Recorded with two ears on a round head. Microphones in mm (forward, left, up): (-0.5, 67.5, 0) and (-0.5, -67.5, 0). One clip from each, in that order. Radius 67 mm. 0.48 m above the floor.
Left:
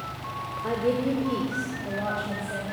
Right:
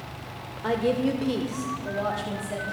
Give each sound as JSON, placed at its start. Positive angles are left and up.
{"t": 0.6, "sound": "a woman speaking", "side_deg": -60, "distance_m": 1.2}